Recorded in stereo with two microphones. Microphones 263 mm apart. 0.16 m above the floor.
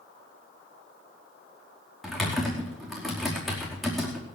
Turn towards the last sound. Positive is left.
turn(degrees=0)  # may be behind; listen again after turning